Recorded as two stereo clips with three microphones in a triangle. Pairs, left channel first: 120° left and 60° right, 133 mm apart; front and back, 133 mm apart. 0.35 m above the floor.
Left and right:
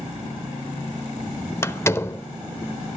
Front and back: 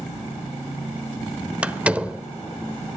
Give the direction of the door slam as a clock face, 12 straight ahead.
8 o'clock.